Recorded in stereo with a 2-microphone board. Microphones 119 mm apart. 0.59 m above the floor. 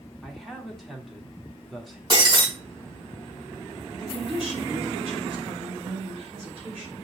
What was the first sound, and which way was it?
A man speaking, centre (ahead or behind).